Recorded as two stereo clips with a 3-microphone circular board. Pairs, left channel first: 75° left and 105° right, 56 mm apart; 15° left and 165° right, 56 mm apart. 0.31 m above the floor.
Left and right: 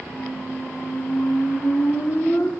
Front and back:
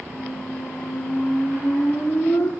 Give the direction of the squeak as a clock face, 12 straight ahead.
11 o'clock.